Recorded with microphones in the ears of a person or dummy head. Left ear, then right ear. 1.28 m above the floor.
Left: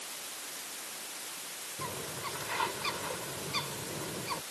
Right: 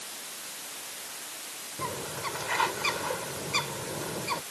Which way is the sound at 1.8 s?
25° right (ahead or behind).